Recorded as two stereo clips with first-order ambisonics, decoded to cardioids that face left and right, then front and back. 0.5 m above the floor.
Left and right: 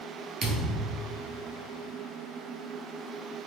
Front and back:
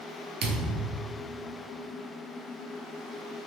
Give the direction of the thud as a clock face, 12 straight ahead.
5 o'clock.